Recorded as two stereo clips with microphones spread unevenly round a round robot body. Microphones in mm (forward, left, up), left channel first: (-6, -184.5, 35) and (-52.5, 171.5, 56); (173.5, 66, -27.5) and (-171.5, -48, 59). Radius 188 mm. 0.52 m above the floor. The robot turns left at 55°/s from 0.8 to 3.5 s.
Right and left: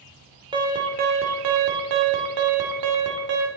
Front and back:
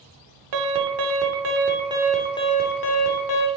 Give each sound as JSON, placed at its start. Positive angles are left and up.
{"t": 0.5, "sound": "an alarm", "azimuth_deg": 175, "distance_m": 1.3}